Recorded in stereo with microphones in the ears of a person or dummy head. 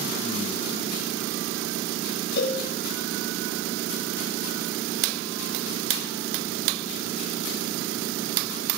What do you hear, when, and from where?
2.4 s a cowbell: 60° left (ahead or behind), 6 m